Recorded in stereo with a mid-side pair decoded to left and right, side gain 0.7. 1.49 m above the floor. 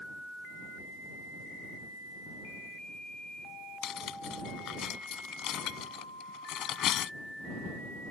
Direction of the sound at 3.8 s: 50° left.